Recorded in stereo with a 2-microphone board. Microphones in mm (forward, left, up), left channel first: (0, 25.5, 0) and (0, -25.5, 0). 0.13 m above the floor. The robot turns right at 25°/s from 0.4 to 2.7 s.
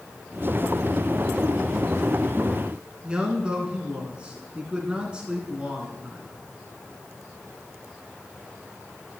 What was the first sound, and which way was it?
A man speaking, 20° right (ahead or behind).